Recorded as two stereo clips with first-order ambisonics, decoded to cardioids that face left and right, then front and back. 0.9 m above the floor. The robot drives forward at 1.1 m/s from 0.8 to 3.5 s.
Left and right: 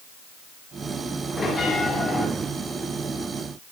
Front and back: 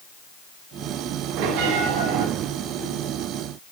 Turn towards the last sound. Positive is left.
turn(degrees=170)